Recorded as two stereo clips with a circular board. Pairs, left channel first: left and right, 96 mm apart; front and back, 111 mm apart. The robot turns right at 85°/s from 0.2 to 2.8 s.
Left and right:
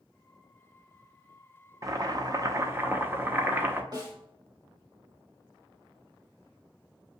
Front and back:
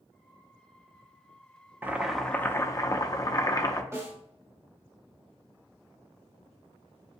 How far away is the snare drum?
About 1.8 m.